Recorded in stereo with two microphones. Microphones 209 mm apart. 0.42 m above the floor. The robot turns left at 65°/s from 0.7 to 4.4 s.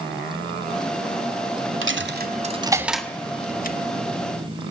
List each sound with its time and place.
1.8 s a dropped coin: 75° right (ahead or behind), 1.0 m; by 3.8 s 50° left (ahead or behind), 1.0 m